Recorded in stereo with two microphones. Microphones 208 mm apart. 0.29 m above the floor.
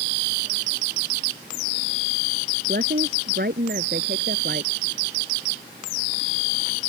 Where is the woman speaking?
55° right (ahead or behind).